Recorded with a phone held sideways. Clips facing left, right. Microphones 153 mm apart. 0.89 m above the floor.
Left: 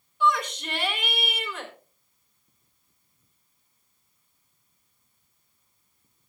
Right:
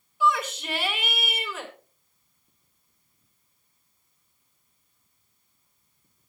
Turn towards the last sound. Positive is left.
turn(degrees=-5)  # may be behind; listen again after turning